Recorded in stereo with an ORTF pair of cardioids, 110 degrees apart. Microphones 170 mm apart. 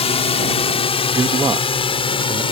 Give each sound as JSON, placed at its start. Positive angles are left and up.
{"t": 0.0, "sound": "a drone", "azimuth_deg": 40}
{"t": 1.1, "sound": "a man speaking", "azimuth_deg": -20}